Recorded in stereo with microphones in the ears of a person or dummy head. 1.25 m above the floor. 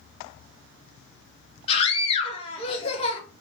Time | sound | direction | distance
1.7 | a scream | 30° left (ahead or behind) | 2 m